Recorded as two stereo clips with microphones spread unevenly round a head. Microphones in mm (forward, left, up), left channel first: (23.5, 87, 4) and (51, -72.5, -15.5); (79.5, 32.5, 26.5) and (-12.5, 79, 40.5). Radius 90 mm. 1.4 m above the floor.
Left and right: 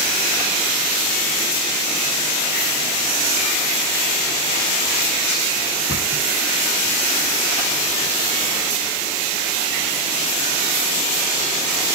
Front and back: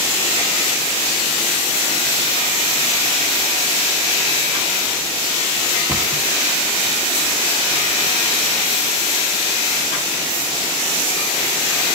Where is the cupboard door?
80° left, 1.7 m.